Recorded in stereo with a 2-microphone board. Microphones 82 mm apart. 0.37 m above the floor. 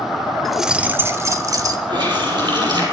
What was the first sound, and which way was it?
Keys jangling, 5° left (ahead or behind).